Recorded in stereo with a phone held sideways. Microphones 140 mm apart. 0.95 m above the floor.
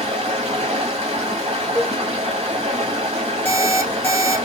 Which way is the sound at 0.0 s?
50° right (ahead or behind).